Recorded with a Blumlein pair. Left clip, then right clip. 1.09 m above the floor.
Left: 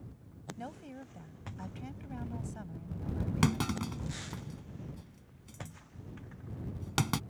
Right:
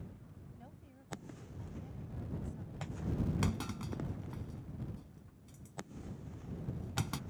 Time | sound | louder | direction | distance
0.6 | a woman speaking | left 16 dB | 55° left | ?
3.4 | a clunk | left 7 dB | 70° left | ?